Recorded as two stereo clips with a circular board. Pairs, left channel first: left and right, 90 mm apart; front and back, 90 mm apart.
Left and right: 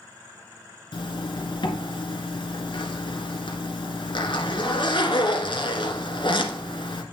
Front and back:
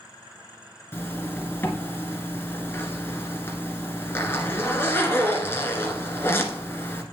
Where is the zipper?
65° left, 1.6 m.